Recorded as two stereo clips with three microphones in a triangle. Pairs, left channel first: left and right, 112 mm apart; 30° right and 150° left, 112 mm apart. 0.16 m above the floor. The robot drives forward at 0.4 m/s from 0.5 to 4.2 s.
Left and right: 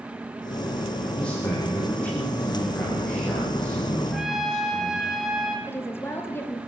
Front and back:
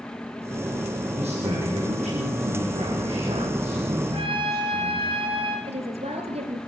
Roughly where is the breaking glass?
No breaking glass in this recording.